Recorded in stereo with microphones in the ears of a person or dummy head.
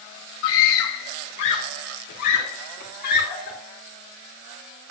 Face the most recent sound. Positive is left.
turn(degrees=55)  # may be behind; listen again after turning